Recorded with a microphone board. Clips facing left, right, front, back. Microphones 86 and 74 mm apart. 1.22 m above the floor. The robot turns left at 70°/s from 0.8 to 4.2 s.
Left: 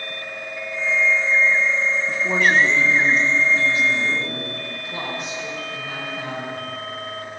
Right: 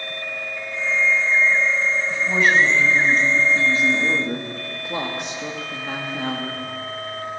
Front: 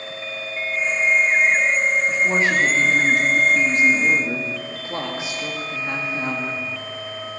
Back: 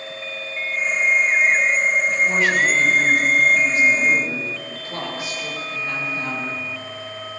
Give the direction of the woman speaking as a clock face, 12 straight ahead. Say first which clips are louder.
Even, even; 9 o'clock.